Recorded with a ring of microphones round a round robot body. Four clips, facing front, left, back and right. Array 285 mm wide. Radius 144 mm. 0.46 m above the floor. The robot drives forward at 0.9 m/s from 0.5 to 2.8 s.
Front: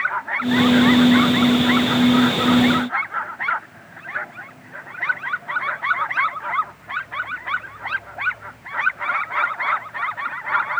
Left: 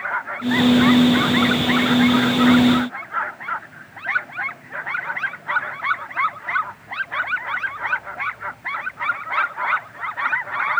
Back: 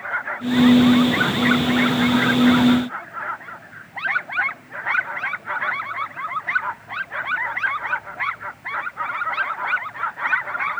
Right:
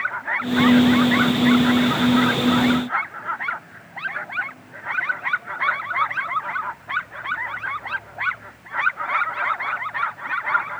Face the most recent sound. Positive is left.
No sound to turn to.